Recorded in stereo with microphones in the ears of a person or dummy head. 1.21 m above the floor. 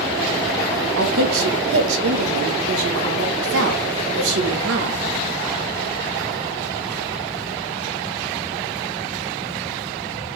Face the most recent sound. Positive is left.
turn(degrees=-75)  # may be behind; listen again after turning